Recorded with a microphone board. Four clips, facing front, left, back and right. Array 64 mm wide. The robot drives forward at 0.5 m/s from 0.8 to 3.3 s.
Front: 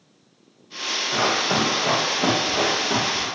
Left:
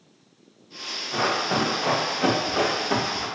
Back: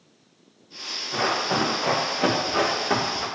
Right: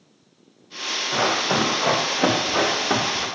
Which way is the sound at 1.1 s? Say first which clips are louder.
Right 2 dB, front 2 dB; 65° right.